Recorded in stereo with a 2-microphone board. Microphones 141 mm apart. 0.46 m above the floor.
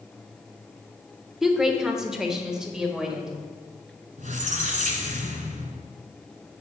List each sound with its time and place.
1.4 s a woman speaking: 5° right (ahead or behind), 0.9 m
4.2 s a squeak: 65° right (ahead or behind), 1.3 m